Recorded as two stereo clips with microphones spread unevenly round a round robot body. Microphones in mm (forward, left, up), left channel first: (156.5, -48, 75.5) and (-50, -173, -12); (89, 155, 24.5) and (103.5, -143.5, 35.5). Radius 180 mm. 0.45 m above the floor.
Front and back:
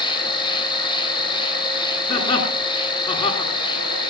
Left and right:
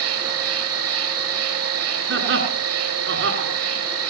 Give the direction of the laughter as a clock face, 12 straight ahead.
1 o'clock.